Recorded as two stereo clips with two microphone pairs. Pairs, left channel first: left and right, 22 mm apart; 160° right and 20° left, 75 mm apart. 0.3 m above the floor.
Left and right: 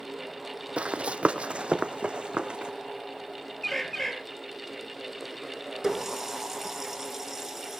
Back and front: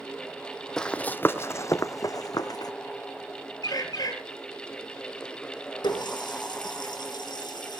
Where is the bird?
165° left, 3.5 m.